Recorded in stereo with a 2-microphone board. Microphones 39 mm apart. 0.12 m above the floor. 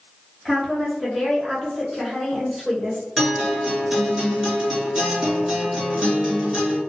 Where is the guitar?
10° right (ahead or behind), 1.7 m.